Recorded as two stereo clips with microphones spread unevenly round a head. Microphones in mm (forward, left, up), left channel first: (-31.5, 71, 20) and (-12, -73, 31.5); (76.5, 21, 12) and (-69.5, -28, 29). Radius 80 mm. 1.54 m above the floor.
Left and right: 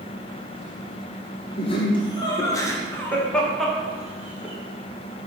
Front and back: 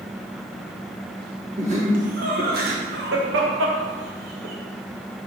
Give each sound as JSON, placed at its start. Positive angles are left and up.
{"t": 1.6, "sound": "laughter", "azimuth_deg": 150, "distance_m": 2.0}